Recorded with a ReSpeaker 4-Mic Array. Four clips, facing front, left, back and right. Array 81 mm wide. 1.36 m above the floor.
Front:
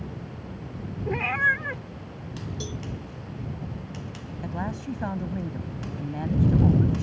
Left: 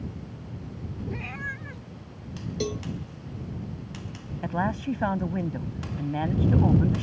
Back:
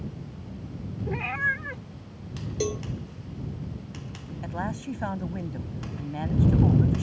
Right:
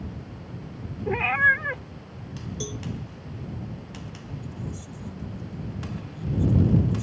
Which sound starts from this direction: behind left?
A cowbell, at 2.6 s.